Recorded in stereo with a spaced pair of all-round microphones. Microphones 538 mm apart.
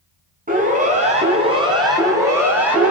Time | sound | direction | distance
0.5 | a siren | 15° right (ahead or behind) | 8 m